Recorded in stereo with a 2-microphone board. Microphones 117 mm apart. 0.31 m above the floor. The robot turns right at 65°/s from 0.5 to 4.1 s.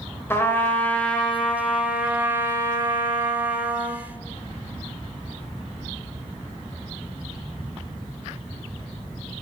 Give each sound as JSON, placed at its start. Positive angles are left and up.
{"t": 0.3, "sound": "a trumpet", "side_deg": 15, "distance_m": 1.4}